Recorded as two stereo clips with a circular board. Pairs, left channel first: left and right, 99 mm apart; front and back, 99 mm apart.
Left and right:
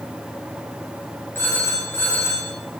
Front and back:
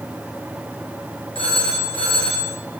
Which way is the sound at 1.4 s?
20° left.